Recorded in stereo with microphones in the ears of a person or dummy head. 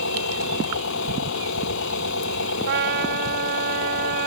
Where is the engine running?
75° left (ahead or behind).